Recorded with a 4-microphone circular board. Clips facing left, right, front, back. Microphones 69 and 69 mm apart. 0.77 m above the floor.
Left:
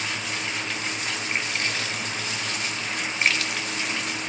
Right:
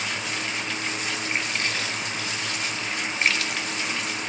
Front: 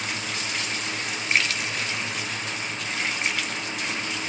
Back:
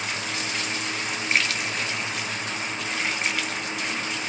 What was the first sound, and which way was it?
Only background noise.